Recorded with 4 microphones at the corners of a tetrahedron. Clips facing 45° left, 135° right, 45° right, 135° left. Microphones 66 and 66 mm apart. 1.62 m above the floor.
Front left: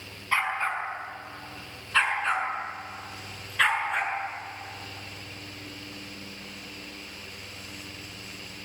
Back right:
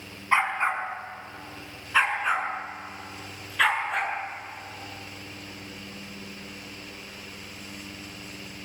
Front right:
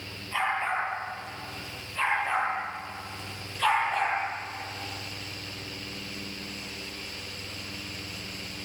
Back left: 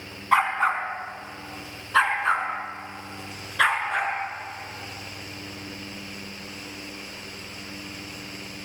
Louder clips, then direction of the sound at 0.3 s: Back right 3 dB, back left 7 dB; 155° left.